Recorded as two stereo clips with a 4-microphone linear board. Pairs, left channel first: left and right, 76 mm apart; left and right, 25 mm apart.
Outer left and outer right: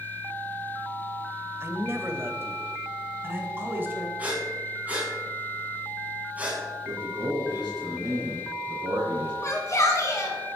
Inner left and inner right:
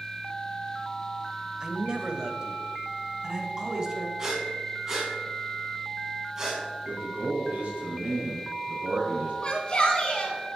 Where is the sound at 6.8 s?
75° right (ahead or behind), 5 m.